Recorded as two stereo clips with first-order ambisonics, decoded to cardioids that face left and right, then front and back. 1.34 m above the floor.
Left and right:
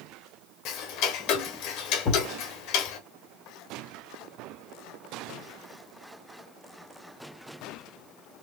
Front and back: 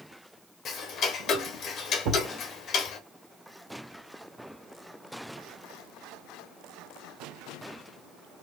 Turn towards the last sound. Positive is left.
turn(degrees=140)